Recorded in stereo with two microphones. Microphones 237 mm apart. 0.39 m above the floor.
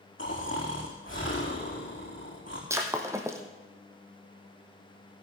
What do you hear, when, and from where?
0.2 s snoring: 60° left (ahead or behind), 4.5 m
2.7 s breaking glass: 10° right (ahead or behind), 1.8 m